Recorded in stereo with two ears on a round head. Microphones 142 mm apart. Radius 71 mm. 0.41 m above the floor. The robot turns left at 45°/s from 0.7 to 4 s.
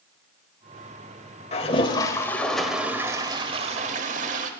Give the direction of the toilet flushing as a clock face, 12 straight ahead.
10 o'clock.